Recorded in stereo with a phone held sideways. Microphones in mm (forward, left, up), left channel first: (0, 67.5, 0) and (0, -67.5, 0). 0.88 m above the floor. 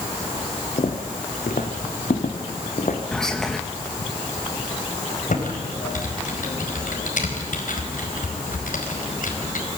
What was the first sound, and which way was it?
Footsteps, 65° left (ahead or behind).